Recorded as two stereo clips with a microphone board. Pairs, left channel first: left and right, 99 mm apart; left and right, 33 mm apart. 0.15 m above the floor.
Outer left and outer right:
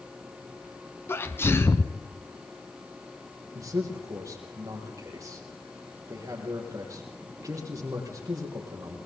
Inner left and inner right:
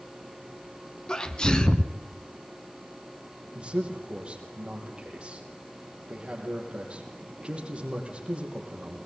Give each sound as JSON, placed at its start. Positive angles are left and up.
{"t": 1.1, "sound": "a sneeze", "side_deg": 25, "distance_m": 1.3}
{"t": 3.5, "sound": "a man speaking", "side_deg": -35, "distance_m": 6.0}